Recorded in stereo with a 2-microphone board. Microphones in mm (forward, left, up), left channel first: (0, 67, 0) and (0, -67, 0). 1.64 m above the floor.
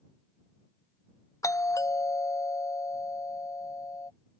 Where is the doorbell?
25° left (ahead or behind).